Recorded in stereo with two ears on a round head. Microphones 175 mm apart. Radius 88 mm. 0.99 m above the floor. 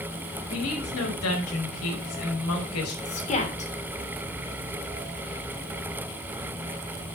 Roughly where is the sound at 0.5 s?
Left.